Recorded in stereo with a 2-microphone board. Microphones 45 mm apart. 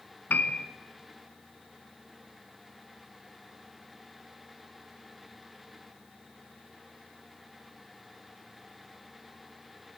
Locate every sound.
0.3 s a piano: 45° left (ahead or behind), 0.9 m